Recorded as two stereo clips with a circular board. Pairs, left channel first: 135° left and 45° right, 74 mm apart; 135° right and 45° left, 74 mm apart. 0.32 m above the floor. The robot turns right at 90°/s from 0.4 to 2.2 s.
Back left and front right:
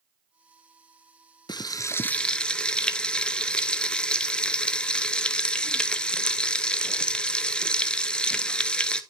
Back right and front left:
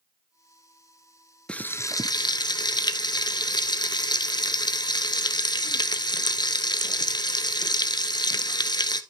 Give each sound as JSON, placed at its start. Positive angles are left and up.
{"t": 1.5, "sound": "frying", "azimuth_deg": 150, "distance_m": 0.6}